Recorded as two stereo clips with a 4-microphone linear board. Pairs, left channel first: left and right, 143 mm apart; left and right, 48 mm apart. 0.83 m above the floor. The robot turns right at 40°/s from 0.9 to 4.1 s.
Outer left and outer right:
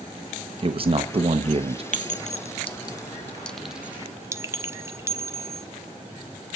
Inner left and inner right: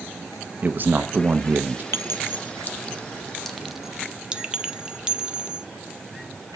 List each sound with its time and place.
0.6 s a man speaking: 110° right, 0.7 m; by 1.8 s 75° right, 0.7 m
1.9 s a clink: 65° left (ahead or behind), 0.7 m; by 5.7 s 20° right (ahead or behind), 0.7 m